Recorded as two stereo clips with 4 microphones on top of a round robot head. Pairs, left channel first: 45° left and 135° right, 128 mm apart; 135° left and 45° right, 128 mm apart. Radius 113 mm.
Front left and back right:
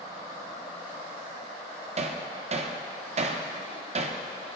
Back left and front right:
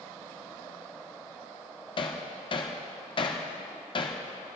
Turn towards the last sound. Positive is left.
turn(degrees=-175)